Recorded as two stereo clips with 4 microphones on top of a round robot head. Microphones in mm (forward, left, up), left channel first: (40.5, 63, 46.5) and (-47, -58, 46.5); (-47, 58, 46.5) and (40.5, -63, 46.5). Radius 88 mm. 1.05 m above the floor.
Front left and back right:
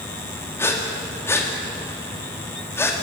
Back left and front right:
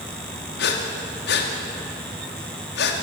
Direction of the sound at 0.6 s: 130° left.